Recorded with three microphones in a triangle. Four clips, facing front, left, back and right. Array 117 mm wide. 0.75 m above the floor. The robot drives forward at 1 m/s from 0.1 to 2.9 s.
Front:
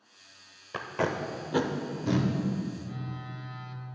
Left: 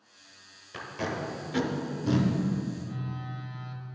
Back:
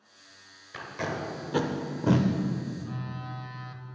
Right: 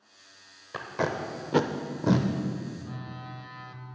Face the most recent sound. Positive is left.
turn(degrees=-145)